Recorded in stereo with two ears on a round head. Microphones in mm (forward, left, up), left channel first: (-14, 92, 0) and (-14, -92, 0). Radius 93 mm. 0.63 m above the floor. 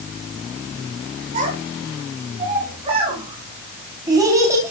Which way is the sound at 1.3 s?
35° right (ahead or behind).